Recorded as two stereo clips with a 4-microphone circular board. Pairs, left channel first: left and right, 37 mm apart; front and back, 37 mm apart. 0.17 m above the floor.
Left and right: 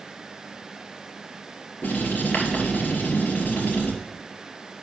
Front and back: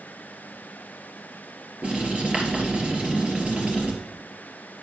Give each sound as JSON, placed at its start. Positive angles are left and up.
{"t": 1.8, "sound": "writing", "azimuth_deg": 125, "distance_m": 2.5}